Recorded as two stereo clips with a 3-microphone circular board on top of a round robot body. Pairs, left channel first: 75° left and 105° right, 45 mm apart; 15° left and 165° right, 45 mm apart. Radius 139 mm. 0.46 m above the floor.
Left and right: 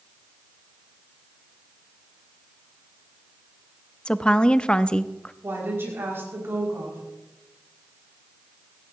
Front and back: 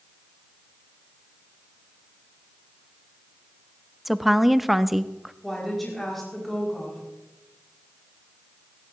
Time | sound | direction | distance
4.0 | a woman speaking | 115° left | 0.7 m
5.4 | a woman speaking | 70° right | 5.5 m